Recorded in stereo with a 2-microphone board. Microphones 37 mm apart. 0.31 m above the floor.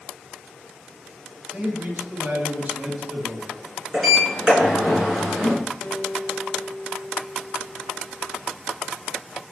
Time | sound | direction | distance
1.5 | a man speaking | 50° right (ahead or behind) | 2.0 m
3.9 | a sliding door | 5° right (ahead or behind) | 2.5 m
5.8 | a guitar | 20° left (ahead or behind) | 2.5 m